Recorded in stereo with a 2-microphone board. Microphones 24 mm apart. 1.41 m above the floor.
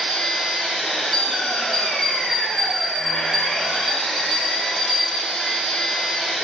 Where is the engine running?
45° left (ahead or behind), 0.8 m.